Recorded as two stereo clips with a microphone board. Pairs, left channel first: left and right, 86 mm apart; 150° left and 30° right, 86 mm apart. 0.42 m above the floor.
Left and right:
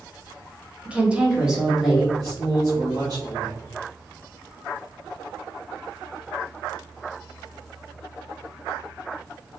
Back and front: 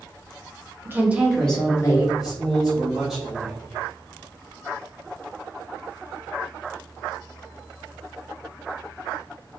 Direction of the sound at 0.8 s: 30° right.